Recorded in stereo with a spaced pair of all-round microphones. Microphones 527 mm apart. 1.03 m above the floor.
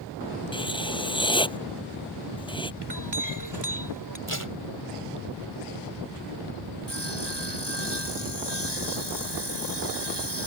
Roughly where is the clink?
Right.